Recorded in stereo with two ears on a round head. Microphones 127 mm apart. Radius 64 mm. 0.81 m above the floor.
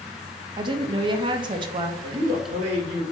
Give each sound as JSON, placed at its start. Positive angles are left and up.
{"t": 0.6, "sound": "a woman speaking", "side_deg": -35, "distance_m": 0.5}
{"t": 2.0, "sound": "a man speaking", "side_deg": -40, "distance_m": 1.4}